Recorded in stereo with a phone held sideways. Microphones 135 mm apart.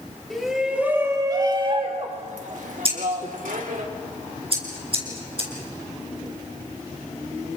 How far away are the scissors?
About 3.5 m.